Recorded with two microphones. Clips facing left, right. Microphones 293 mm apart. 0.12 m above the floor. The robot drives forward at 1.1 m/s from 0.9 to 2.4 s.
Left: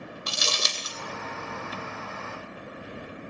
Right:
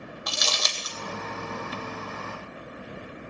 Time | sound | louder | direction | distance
0.3 | crumpling | even | 35° left (ahead or behind) | 1.1 m